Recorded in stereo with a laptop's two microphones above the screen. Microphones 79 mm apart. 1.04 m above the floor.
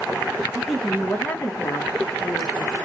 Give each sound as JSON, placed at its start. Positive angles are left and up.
{"t": 0.5, "sound": "a woman speaking", "side_deg": -5, "distance_m": 0.9}